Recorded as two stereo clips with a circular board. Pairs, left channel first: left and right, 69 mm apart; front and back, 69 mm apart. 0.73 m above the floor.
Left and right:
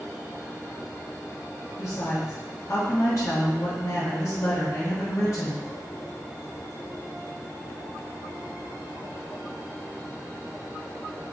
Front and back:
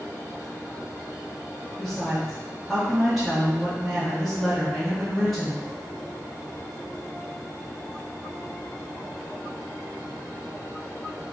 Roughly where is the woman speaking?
Left.